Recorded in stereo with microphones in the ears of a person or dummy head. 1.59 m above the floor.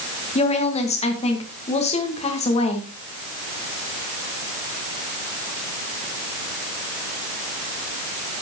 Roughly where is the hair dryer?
I don't hear a hair dryer.